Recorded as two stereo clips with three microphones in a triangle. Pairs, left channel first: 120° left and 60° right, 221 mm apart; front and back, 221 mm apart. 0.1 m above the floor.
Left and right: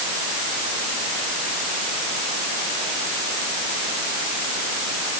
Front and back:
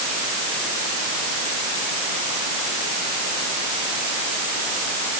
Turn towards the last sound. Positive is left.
No sound to turn to.